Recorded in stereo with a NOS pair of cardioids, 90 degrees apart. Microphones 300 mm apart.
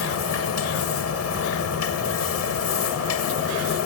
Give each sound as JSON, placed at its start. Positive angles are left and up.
{"t": 0.0, "sound": "a machine running", "azimuth_deg": 55}